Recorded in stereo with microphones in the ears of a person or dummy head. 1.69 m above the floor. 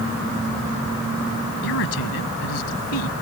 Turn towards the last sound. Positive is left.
turn(degrees=85)